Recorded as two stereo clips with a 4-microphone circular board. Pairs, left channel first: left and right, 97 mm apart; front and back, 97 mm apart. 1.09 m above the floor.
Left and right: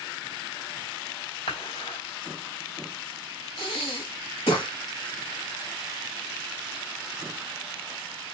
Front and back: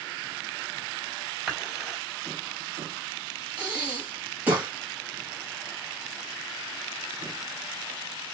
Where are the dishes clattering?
95° left, 2.5 m.